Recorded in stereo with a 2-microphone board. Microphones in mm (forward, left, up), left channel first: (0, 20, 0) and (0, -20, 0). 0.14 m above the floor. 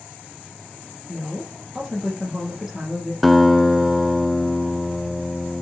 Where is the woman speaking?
10° right (ahead or behind), 6 m.